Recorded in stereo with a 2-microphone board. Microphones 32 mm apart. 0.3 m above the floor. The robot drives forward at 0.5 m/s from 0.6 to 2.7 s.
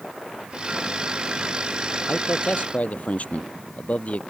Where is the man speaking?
55° left (ahead or behind); by 4.2 s 50° left (ahead or behind).